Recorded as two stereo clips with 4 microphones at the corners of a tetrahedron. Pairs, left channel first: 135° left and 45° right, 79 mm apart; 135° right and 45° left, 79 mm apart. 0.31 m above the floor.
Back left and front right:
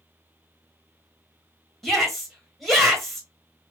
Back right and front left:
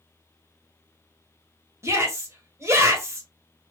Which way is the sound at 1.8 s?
50° left.